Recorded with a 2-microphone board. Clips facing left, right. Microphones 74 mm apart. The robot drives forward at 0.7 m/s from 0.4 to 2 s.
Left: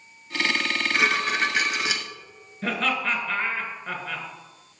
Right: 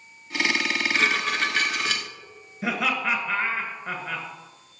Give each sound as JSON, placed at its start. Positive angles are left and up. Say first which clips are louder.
{"t": 0.6, "sound": "dishes clattering", "louder": "left 2 dB", "side_deg": 10, "distance_m": 1.1}
{"t": 2.6, "sound": "laughter", "louder": "even", "side_deg": -10, "distance_m": 1.6}